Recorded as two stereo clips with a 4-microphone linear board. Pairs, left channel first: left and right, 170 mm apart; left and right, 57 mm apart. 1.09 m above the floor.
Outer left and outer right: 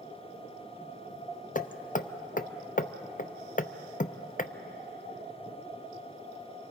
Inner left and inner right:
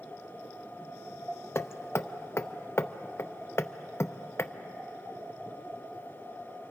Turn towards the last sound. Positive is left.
turn(degrees=50)  # may be behind; listen again after turning